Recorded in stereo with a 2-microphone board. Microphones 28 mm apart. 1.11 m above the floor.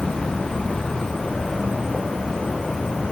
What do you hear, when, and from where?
0.0 s an insect: 20° left (ahead or behind), 3 m